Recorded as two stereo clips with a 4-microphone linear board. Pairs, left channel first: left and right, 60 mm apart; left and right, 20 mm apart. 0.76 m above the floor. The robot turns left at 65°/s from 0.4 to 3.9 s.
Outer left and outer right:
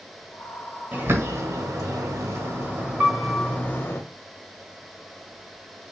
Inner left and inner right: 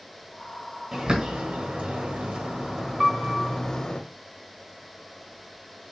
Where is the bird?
25° right (ahead or behind), 1.2 m; by 4.0 s 40° left (ahead or behind), 1.2 m.